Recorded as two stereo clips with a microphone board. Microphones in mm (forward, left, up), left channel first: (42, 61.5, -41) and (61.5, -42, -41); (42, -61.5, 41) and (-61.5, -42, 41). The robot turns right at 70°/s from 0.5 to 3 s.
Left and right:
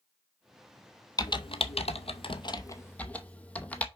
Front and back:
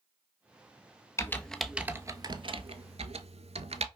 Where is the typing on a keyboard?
50° left, 0.7 m; by 3.9 s 175° left, 0.7 m.